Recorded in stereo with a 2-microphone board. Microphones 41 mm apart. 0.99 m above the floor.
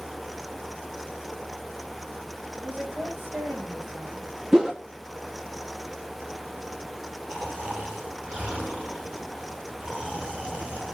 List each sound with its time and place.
2.6 s a woman speaking: 70° right (ahead or behind), 5.5 m
4.5 s a whoosh: 15° right (ahead or behind), 1.1 m
7.3 s snoring: 30° right (ahead or behind), 4.5 m